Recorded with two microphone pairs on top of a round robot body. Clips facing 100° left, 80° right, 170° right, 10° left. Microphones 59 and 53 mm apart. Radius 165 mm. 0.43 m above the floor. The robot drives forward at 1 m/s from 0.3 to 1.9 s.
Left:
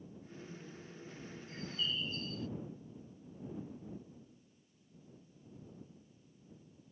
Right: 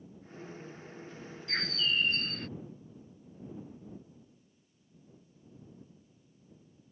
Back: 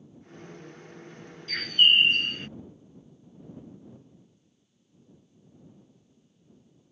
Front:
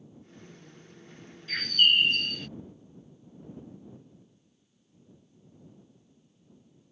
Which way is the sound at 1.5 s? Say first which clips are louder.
Right 8 dB, back 2 dB; 65° right.